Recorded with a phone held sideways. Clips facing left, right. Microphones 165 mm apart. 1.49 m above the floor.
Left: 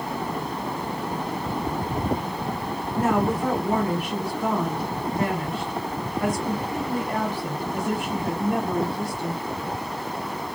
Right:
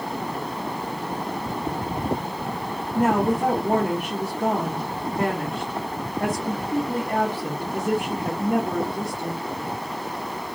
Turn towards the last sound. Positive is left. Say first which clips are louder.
# right 2 dB
turn(degrees=-50)  # may be behind; listen again after turning